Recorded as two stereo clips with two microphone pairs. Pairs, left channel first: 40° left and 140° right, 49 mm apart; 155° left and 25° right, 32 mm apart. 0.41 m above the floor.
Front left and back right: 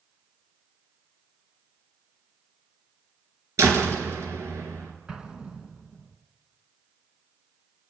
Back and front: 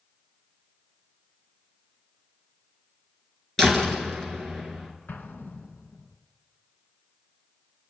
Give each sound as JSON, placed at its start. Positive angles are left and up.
{"t": 3.6, "sound": "a door slam", "azimuth_deg": -130, "distance_m": 4.0}
{"t": 5.1, "sound": "an explosion", "azimuth_deg": 145, "distance_m": 2.0}